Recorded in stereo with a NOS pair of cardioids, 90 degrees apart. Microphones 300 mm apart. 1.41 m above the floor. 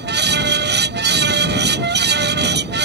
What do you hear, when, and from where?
0.0 s a fan: 35° right